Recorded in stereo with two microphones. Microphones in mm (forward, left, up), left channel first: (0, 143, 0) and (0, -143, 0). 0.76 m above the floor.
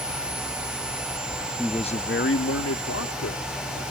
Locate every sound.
1.6 s a man speaking: centre (ahead or behind); by 3.8 s 75° left (ahead or behind)